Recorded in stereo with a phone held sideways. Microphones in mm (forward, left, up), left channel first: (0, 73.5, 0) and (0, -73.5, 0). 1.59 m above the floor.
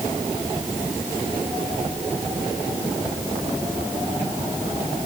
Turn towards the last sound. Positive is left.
No sound to turn to.